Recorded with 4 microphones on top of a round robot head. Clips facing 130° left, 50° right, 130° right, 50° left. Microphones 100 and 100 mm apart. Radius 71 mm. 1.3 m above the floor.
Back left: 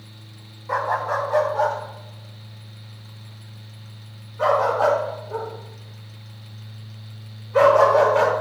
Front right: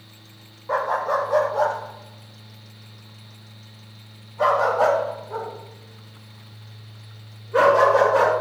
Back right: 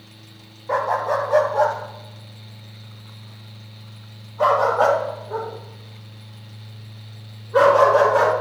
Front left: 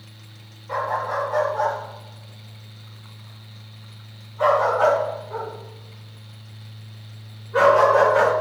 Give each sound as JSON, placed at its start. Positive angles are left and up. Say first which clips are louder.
{"t": 0.7, "sound": "a dog barking", "louder": "front right 1 dB, back right 4 dB", "azimuth_deg": -120, "distance_m": 1.5}